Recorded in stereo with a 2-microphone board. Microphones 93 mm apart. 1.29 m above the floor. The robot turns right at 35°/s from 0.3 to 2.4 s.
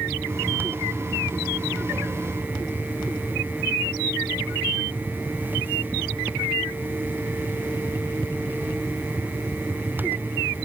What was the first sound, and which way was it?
Only background noise.